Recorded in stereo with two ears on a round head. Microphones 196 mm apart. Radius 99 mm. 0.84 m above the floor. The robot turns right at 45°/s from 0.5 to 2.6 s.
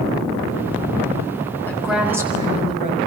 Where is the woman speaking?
170° left, 6.5 m; by 3.0 s 150° right, 6.5 m.